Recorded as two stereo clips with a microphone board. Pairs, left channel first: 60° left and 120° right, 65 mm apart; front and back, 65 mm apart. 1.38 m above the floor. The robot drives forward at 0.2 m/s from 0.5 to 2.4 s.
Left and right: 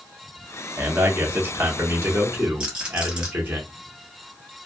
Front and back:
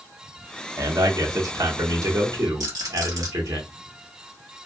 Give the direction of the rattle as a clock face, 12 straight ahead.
6 o'clock.